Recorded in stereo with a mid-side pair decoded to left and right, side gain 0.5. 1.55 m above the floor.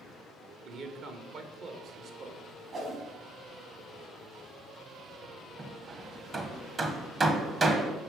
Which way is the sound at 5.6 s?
35° right.